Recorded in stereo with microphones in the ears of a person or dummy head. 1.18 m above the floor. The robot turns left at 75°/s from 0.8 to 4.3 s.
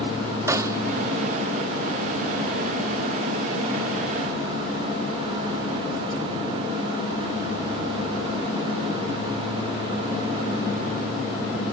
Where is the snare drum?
15° right (ahead or behind).